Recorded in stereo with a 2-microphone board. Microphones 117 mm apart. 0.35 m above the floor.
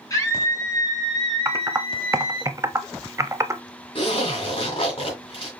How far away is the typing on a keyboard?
About 0.5 m.